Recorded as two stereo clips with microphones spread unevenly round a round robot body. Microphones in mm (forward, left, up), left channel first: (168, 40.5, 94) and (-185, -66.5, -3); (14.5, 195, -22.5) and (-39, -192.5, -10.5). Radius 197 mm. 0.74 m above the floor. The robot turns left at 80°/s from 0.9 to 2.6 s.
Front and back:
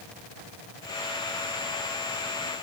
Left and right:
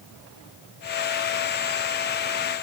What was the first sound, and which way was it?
Only background noise.